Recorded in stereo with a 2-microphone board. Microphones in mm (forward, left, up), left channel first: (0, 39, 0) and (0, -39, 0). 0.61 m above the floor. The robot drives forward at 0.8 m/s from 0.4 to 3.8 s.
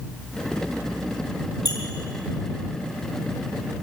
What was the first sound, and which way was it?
A squeak, 60° left (ahead or behind).